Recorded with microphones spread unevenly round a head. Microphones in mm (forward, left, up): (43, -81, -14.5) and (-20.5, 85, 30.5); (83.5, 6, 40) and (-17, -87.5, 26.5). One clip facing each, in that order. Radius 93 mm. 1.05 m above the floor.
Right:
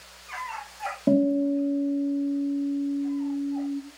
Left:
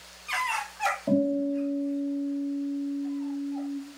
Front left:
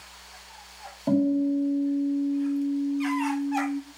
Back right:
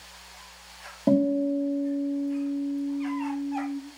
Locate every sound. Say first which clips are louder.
1.1 s a guitar: right 4 dB, even; 85° right, 2 m